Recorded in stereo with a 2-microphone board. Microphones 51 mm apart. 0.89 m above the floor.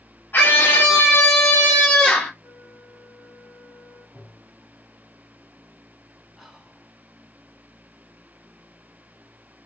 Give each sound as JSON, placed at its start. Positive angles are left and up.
{"t": 0.3, "sound": "a scream", "side_deg": 40, "distance_m": 0.8}
{"t": 2.4, "sound": "a flute", "side_deg": 60, "distance_m": 2.0}
{"t": 4.2, "sound": "tapping", "side_deg": -45, "distance_m": 1.2}
{"t": 6.4, "sound": "whispering", "side_deg": -5, "distance_m": 0.9}